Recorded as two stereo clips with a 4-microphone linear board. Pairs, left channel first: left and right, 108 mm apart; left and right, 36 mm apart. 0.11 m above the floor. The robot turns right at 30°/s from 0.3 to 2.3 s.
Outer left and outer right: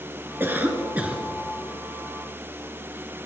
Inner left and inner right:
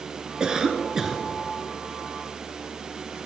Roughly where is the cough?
Right.